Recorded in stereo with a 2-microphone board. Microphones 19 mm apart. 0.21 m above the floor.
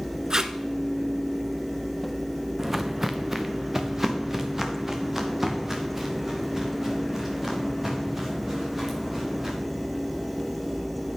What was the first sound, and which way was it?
Tape being pulled, 35° right (ahead or behind).